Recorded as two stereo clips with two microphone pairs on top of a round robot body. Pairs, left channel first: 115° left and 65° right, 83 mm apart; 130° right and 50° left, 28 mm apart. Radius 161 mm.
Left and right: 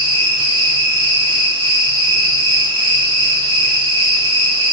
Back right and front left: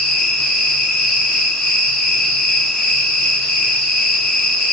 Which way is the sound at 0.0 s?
60° right.